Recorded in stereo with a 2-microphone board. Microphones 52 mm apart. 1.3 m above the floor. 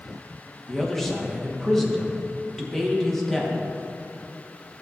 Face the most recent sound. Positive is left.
turn(degrees=5)  # may be behind; listen again after turning